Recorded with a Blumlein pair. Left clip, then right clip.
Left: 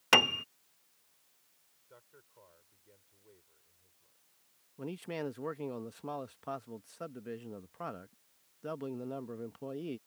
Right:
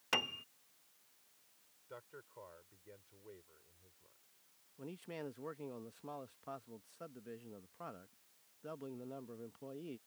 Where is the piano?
30° left.